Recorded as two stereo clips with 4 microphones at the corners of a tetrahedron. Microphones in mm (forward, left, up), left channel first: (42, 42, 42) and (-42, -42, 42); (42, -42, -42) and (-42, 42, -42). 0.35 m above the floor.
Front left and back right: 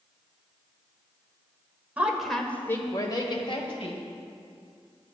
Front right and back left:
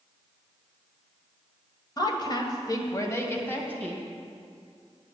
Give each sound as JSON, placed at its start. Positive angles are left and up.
{"t": 2.0, "sound": "a woman speaking", "azimuth_deg": -65, "distance_m": 1.5}